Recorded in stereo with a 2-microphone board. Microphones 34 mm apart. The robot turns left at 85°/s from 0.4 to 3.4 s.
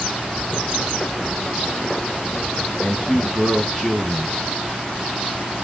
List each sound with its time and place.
2.8 s a man speaking: 55° left, 2 m; by 4.4 s 5° left, 2 m